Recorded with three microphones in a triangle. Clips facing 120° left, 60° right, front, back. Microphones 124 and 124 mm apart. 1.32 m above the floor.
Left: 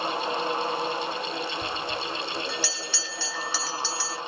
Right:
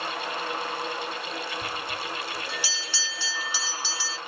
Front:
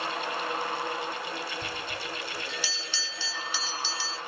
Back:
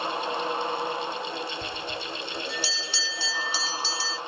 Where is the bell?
135° right, 1.3 m.